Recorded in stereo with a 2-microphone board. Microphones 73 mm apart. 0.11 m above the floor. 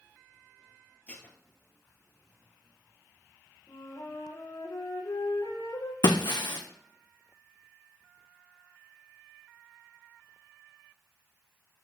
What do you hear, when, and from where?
1.1 s dishes clattering: 20° left (ahead or behind), 1.6 m
3.7 s a flute: 70° left (ahead or behind), 4 m
6.0 s breaking glass: 80° left, 1.4 m